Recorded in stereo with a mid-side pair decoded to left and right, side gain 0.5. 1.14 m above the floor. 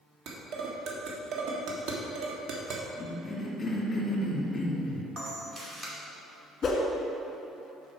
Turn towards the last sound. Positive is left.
turn(degrees=40)